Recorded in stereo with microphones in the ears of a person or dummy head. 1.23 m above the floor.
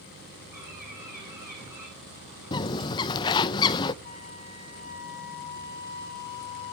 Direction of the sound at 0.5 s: 15° right (ahead or behind).